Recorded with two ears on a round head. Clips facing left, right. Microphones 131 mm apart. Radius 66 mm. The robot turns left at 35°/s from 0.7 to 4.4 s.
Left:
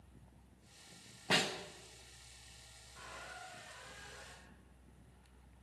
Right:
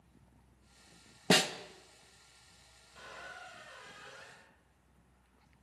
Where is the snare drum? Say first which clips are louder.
Right 7 dB; 55° right (ahead or behind), 0.9 m; by 1.5 s 50° right (ahead or behind), 0.9 m.